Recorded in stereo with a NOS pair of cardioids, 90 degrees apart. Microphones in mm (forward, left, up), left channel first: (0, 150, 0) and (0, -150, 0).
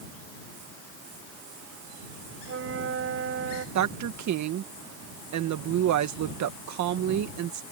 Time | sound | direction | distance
2.5 | a flute | 50° right | ?
3.8 | a woman speaking | 65° right | ?